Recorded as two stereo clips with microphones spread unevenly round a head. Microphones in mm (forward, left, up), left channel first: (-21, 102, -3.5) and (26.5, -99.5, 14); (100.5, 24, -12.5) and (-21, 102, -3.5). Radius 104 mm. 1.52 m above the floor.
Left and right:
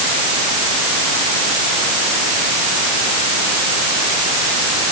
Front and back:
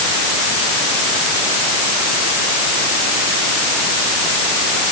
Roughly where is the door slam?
I don't hear a door slam.